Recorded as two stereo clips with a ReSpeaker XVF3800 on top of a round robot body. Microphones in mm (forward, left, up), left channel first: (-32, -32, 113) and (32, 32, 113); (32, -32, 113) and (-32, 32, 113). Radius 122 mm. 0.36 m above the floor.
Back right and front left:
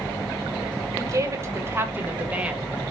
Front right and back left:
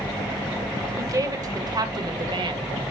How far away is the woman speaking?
About 1.9 m.